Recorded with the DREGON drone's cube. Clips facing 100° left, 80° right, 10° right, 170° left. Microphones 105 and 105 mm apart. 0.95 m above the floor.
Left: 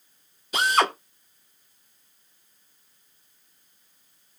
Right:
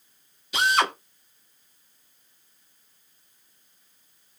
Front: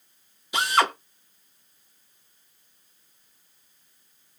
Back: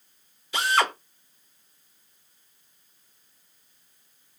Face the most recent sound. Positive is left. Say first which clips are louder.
# left 1 dB, front 1 dB
turn(degrees=60)